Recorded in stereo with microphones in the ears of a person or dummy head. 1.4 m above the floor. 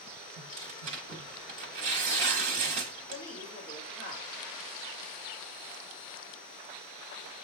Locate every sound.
0.4 s tearing paper: 35° right (ahead or behind), 0.9 m
3.1 s a woman speaking: 40° left (ahead or behind), 2.5 m